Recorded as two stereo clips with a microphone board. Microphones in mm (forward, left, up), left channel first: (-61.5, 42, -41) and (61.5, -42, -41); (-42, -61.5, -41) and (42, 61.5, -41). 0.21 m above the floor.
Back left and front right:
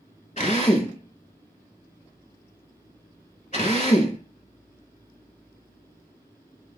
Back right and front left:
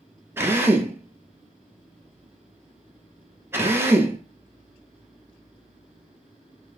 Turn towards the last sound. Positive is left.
turn(degrees=125)